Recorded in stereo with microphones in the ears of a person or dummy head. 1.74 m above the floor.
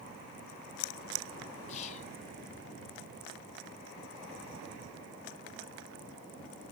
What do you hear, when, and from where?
1.7 s whispering: 40° left (ahead or behind)